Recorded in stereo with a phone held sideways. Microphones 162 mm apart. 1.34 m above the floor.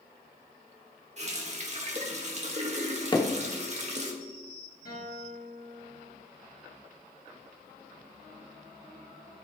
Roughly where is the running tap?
Right.